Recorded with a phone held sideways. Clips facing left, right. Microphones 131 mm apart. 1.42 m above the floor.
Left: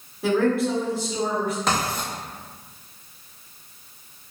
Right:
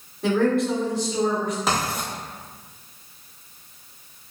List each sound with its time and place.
0.2 s a woman speaking: 5° left (ahead or behind), 1.1 m
1.7 s writing: 5° right (ahead or behind), 0.9 m